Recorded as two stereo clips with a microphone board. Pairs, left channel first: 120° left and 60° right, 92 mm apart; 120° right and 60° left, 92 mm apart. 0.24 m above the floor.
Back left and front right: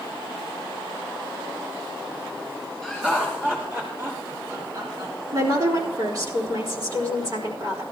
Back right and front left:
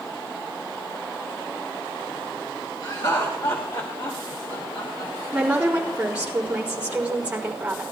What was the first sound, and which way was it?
Laughter, 150° right.